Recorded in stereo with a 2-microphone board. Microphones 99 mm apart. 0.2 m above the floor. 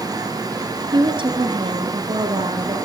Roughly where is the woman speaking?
Right.